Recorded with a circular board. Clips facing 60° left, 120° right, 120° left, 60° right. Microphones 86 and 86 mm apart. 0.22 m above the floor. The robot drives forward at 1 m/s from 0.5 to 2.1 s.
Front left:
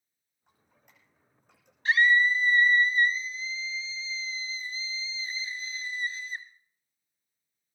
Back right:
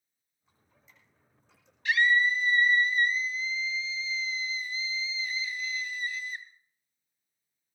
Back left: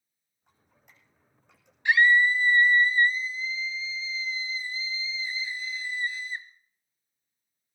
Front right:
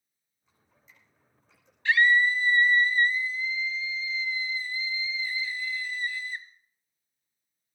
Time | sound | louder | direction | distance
0.5 | dripping | even, even | 85° left | 9 m
1.9 | a scream | front left 2 dB, back left 1 dB | 60° left | 1.8 m